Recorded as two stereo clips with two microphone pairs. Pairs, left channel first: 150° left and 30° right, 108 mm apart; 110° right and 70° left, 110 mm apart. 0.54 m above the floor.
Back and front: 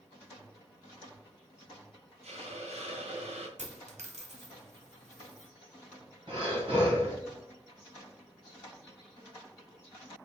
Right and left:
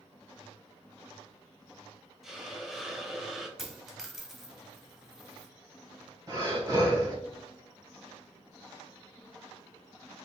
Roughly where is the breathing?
Ahead.